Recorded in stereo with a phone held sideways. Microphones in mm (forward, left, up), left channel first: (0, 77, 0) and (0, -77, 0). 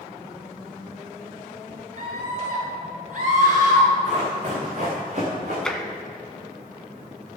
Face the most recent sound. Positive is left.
turn(degrees=5)  # may be behind; listen again after turning